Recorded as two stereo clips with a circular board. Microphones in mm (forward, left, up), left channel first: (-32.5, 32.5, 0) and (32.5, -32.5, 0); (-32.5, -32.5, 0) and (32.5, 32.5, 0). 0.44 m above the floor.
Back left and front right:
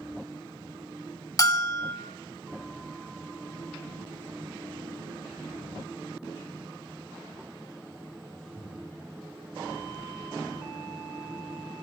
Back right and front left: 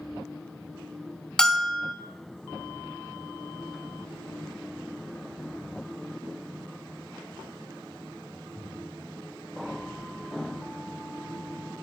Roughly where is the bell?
Behind left.